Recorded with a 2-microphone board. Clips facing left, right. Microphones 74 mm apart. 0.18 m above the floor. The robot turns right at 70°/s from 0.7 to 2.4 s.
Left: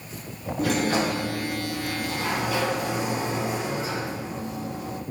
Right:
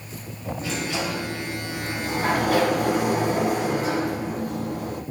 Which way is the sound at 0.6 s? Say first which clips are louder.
Left 6 dB; 120° left.